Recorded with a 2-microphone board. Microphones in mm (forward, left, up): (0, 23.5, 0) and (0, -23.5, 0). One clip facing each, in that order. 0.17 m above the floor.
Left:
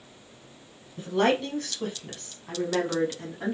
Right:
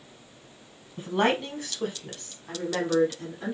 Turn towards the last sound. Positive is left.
turn(degrees=25)  # may be behind; listen again after turning